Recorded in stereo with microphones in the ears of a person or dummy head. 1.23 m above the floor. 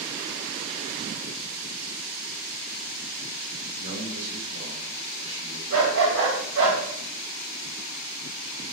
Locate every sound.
3.8 s a man speaking: 80° right, 3.5 m
5.7 s a dog barking: 70° right (ahead or behind), 2.5 m